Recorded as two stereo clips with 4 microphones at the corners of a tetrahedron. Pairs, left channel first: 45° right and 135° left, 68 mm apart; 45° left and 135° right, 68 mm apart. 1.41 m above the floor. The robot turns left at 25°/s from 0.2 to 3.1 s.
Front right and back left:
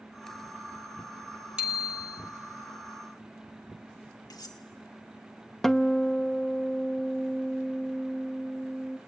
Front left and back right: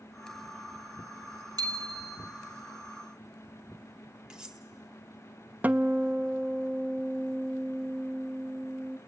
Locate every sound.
1.6 s a bicycle bell: 150° right, 3.5 m; by 2.2 s 165° right, 3.5 m
4.3 s cutlery clinking: 55° right, 1.9 m
5.6 s a guitar: 120° right, 0.7 m